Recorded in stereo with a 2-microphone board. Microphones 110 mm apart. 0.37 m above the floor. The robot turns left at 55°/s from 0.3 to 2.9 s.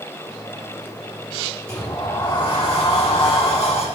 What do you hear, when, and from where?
1.7 s a sliding door: 170° left, 6.5 m; by 3.8 s 105° left, 6.5 m